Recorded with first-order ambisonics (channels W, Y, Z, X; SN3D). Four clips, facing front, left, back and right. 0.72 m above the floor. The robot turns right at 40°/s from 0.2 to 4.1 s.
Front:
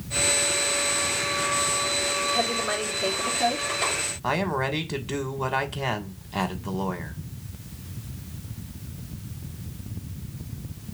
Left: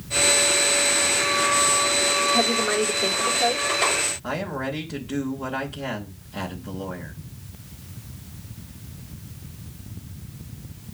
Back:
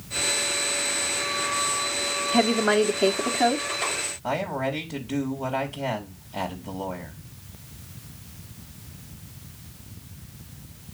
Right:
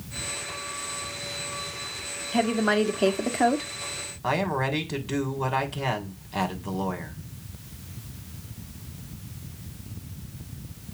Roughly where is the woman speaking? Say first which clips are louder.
Left 2 dB, back 5 dB; behind.